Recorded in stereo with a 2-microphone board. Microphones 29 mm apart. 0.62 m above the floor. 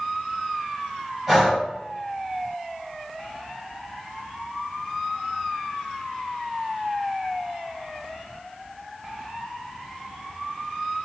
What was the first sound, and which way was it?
Breathing, 10° right (ahead or behind).